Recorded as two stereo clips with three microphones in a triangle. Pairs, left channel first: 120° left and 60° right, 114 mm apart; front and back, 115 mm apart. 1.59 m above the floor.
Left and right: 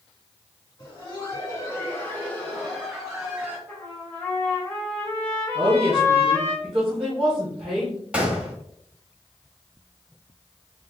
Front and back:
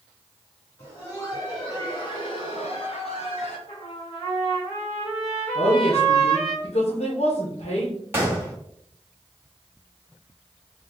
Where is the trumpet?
45° left, 1.9 m.